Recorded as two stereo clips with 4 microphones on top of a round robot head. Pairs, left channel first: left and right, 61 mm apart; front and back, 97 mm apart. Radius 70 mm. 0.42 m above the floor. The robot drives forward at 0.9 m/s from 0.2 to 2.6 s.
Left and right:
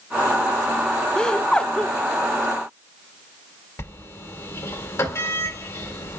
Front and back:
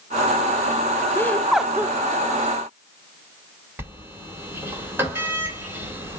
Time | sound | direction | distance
1.1 | laughter | 25° left | 0.8 m
3.8 | a sliding door | 120° left | 2.5 m